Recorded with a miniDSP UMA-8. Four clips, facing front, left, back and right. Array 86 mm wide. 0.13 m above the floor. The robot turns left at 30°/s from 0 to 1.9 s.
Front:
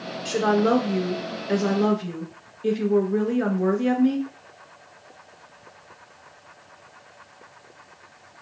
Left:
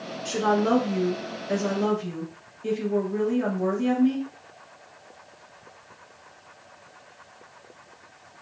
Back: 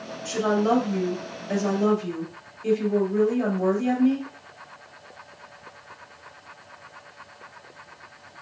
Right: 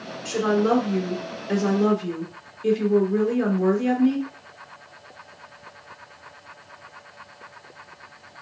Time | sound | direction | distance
0.2 | a woman speaking | 10° left | 1.7 m